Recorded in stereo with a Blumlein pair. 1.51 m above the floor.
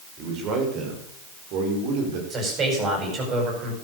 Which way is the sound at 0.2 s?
30° right.